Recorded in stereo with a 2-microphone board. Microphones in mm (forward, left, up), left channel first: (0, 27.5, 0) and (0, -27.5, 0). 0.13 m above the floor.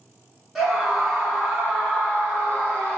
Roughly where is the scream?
Centre.